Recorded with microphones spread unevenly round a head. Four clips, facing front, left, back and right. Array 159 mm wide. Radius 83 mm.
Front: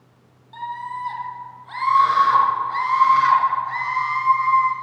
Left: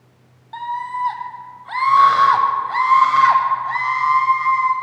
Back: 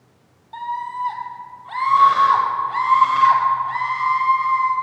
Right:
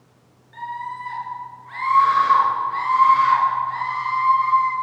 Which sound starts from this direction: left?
A scream, at 0.5 s.